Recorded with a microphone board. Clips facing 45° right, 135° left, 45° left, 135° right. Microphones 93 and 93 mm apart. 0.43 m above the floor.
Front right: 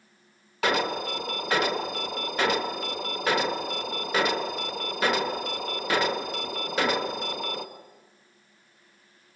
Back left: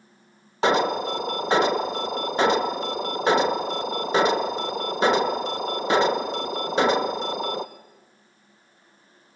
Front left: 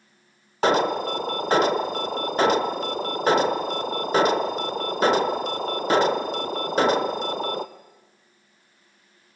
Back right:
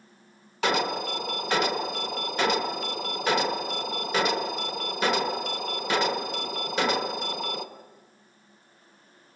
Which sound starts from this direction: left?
An alarm, at 0.6 s.